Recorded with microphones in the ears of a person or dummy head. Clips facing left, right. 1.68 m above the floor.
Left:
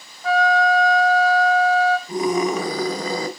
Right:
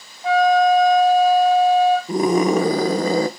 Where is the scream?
40° right (ahead or behind), 1.4 m.